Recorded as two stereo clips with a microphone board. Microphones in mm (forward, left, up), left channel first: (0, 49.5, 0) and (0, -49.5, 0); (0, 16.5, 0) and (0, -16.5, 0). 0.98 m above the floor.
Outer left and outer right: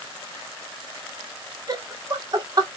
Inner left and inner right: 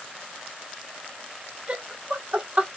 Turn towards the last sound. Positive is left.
turn(degrees=-40)  # may be behind; listen again after turning